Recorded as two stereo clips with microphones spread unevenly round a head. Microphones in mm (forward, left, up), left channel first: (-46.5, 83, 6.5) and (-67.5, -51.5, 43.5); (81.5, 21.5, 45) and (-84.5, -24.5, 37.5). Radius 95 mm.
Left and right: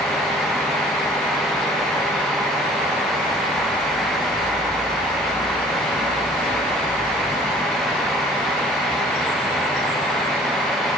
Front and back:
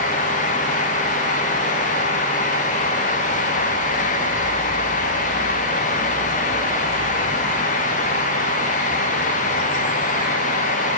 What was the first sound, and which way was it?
Only background noise.